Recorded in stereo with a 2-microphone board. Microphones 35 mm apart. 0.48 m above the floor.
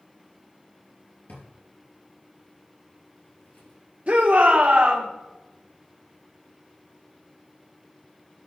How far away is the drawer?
About 3 m.